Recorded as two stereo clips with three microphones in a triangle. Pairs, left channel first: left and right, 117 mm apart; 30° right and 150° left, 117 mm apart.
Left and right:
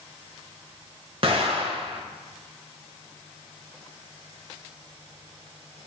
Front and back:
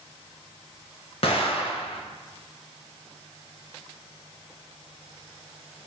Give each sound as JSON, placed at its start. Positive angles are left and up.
{"t": 1.2, "sound": "an explosion", "azimuth_deg": -55, "distance_m": 0.7}